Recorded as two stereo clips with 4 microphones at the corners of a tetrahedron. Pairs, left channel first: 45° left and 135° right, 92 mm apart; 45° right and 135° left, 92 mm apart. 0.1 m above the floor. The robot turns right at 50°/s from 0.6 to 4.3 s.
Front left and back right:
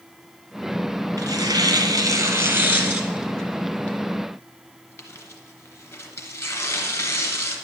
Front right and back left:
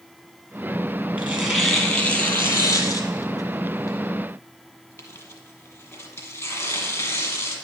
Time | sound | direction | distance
1.2 | tearing paper | 160° right | 1.7 m